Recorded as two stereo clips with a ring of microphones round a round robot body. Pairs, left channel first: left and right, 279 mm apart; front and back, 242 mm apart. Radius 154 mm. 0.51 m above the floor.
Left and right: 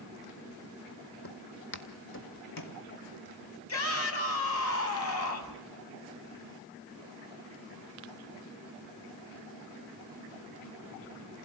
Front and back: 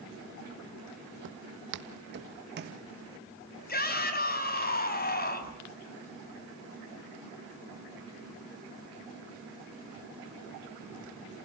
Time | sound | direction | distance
1.2 | footsteps | 145° left | 1.0 m
3.7 | a shout | 50° left | 5 m